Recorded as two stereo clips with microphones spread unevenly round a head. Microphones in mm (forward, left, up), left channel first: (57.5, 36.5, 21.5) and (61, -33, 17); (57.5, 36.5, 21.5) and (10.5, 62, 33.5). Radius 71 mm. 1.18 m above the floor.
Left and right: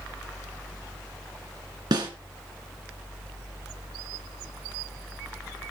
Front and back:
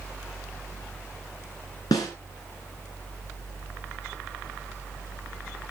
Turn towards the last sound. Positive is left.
turn(degrees=-75)